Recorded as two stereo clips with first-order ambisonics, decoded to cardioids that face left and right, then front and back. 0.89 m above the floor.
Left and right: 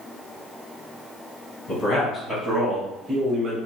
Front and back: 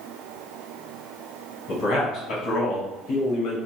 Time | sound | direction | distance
1.7 | a man speaking | 50° left | 0.9 m